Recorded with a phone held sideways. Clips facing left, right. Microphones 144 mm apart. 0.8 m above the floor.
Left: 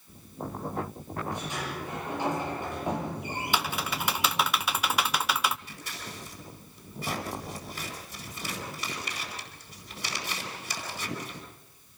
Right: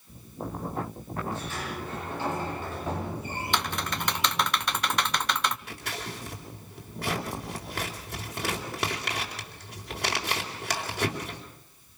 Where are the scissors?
65° right (ahead or behind), 4 m.